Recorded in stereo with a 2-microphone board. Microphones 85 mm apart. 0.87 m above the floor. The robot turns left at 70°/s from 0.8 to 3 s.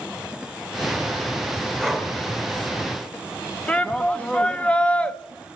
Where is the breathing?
10° left (ahead or behind), 2.0 m; by 2.1 s 15° right (ahead or behind), 2.0 m.